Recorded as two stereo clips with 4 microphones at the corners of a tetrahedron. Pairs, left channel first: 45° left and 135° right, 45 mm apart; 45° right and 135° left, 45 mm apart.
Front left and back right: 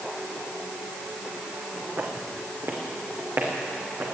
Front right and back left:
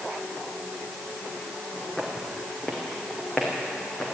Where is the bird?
I don't hear a bird.